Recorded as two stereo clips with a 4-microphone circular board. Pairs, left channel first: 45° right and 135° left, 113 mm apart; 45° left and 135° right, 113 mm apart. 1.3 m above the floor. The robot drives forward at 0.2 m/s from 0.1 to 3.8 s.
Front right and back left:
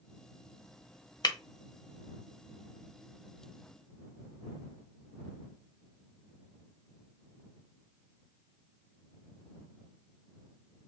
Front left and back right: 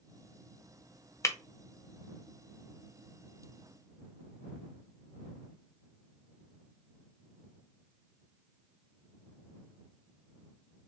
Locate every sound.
1.2 s breaking glass: 10° right, 0.5 m